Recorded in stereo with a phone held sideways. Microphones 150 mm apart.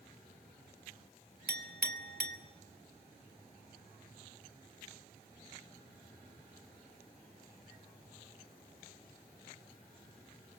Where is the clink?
85° right, 1.9 m.